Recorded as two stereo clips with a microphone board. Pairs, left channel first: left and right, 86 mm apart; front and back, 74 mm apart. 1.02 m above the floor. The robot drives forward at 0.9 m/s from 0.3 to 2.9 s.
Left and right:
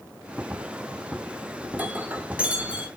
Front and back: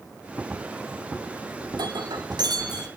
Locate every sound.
1.7 s breaking glass: 160° right, 1.7 m; by 2.9 s 165° right, 2.5 m